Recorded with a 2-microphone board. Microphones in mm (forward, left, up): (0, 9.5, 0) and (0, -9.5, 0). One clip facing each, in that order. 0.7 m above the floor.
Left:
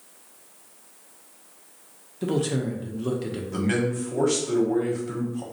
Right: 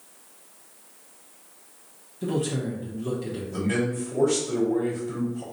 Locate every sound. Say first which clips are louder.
2.2 s a man speaking: left 2 dB; 30° left (ahead or behind), 0.7 m
3.5 s a man speaking: left 1 dB; 40° left (ahead or behind), 1.1 m